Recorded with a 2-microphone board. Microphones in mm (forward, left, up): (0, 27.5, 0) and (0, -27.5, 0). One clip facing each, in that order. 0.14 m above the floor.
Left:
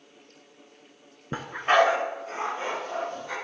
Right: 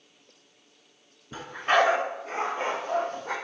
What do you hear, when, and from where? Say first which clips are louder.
1.3 s a dog barking: left 2 dB; 50° left (ahead or behind), 0.6 m; by 3.3 s 50° right (ahead or behind), 2 m